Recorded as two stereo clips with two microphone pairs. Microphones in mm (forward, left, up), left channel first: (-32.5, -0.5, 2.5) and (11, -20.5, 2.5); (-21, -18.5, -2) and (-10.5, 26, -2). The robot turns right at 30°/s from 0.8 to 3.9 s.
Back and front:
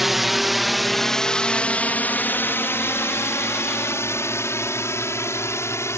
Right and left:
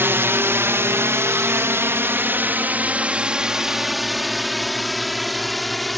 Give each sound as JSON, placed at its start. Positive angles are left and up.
{"t": 0.0, "sound": "a drone", "azimuth_deg": 60}